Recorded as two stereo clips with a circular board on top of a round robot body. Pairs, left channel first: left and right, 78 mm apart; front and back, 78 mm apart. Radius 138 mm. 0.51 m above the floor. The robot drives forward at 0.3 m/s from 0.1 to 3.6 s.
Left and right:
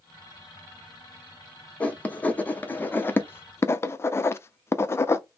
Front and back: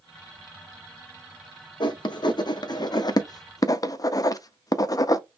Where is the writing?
15° left, 1.0 m; by 5.2 s 35° left, 0.6 m.